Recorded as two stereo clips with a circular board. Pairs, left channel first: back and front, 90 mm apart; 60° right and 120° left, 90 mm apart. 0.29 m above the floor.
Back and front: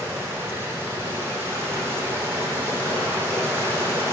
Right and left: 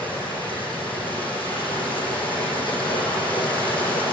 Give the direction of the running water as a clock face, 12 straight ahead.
2 o'clock.